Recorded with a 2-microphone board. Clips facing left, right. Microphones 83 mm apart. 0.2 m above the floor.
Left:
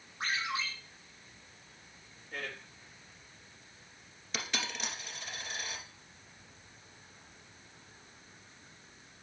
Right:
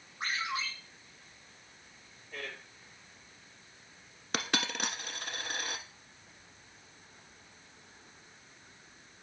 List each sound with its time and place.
0.2 s a ringtone: 75° left (ahead or behind), 6.5 m
2.3 s a man speaking: 60° left (ahead or behind), 3.5 m
4.3 s a dropped coin: 50° right (ahead or behind), 1.0 m